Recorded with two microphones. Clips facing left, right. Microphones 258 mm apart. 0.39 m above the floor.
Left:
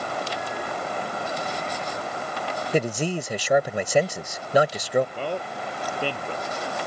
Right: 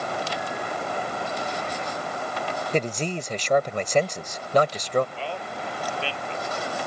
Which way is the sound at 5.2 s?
45° left (ahead or behind).